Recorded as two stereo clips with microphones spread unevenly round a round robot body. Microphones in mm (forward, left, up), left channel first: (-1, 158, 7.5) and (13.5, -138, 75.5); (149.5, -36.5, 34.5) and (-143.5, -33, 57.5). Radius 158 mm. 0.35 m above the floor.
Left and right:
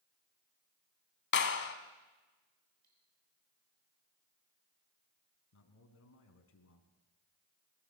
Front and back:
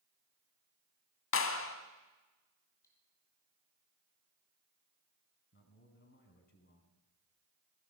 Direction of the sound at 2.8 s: 80° right.